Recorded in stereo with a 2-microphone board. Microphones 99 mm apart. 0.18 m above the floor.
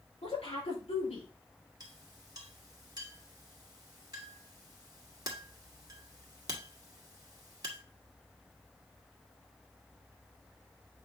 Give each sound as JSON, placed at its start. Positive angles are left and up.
{"t": 0.2, "sound": "a woman speaking", "side_deg": 75, "distance_m": 5.0}
{"t": 1.8, "sound": "a clink", "side_deg": -40, "distance_m": 1.8}